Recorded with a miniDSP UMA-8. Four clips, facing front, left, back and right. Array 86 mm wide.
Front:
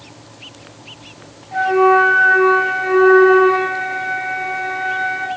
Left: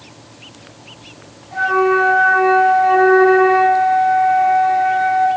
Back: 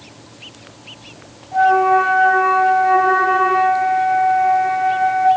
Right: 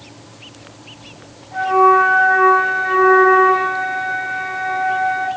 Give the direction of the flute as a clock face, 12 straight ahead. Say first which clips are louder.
Right 3 dB, even; 11 o'clock.